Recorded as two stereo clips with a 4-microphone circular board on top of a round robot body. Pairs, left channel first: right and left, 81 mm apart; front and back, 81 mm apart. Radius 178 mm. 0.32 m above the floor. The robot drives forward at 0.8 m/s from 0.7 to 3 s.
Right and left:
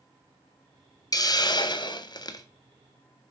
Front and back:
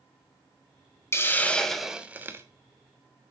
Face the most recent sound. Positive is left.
turn(degrees=-140)